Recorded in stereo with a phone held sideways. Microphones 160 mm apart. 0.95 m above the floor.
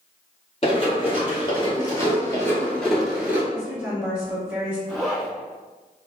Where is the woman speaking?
5° right (ahead or behind), 1.4 m.